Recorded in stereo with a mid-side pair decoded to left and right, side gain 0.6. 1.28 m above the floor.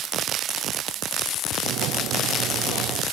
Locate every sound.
1.6 s a sliding door: 65° right